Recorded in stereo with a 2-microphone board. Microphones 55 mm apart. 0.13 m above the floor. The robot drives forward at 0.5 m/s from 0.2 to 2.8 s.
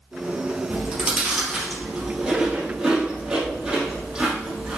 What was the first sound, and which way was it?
Chewing, 15° right (ahead or behind).